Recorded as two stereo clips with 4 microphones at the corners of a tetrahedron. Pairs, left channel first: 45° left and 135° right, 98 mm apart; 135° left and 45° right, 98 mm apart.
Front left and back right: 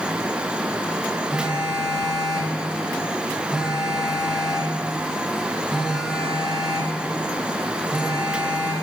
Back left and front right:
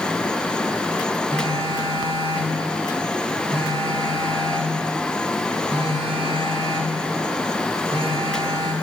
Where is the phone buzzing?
55° right, 1.3 m.